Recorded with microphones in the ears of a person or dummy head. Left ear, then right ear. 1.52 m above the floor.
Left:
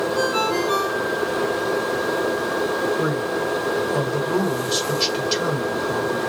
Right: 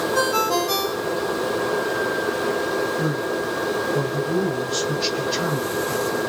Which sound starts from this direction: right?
A ringtone, at 0.1 s.